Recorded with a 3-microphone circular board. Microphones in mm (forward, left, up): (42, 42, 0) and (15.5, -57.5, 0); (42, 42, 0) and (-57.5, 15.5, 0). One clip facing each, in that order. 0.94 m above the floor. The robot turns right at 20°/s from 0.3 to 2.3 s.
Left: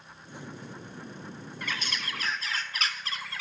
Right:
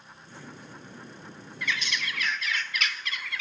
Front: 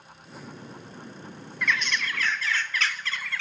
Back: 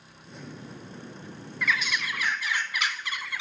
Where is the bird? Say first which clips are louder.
Right 4 dB, front 1 dB; 105° left, 0.6 m; by 3.4 s 120° left, 0.6 m.